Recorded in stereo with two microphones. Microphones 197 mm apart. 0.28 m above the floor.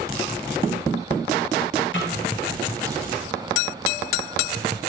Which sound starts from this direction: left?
A snare drum, at 1.9 s.